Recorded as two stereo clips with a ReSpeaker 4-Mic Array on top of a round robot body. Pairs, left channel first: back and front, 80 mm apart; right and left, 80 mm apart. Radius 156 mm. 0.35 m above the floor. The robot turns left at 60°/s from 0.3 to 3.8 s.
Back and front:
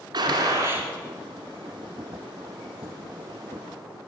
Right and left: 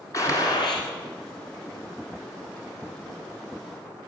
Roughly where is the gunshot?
Ahead right.